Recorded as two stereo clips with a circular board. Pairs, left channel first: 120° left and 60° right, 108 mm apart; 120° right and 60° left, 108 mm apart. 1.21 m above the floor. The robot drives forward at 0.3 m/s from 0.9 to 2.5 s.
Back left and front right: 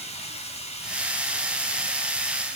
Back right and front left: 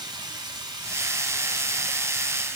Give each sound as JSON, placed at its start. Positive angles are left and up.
{"t": 0.0, "sound": "running water", "azimuth_deg": 105, "distance_m": 1.1}